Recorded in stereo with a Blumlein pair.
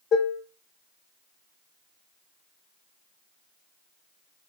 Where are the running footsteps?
No running footsteps in this recording.